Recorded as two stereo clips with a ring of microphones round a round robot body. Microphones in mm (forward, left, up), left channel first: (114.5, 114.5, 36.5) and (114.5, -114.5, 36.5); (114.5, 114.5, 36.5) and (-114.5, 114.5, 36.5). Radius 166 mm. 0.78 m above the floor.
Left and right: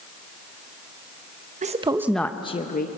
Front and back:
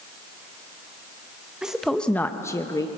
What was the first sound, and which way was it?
A woman speaking, 95° right.